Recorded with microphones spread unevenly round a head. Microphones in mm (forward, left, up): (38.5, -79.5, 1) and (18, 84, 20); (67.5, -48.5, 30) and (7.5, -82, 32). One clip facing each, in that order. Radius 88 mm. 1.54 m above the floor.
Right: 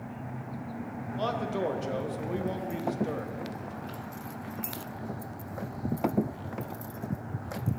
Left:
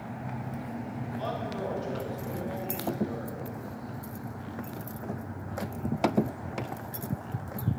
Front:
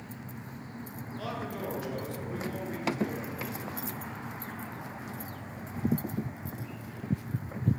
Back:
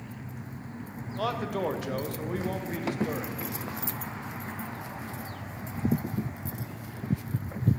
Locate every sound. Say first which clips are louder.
1.2 s a man speaking: right 4 dB, back 7 dB; 120° right, 1.4 m